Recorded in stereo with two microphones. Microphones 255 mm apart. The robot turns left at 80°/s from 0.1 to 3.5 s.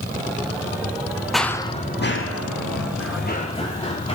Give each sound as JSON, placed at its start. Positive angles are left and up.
{"t": 1.3, "sound": "running footsteps", "side_deg": 0, "distance_m": 0.8}